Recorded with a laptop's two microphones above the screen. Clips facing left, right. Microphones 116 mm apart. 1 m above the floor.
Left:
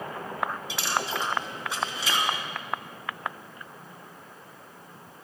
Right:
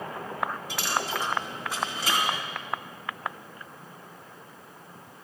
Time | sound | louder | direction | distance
0.7 | a dropped coin | even | 55° right (ahead or behind) | 4.5 m